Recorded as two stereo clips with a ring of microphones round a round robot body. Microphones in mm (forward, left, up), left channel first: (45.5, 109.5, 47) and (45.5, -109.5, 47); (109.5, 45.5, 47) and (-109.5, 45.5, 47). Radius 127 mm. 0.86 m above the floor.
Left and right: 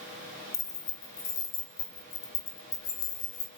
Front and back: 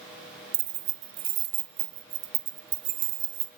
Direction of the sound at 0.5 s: 165° left.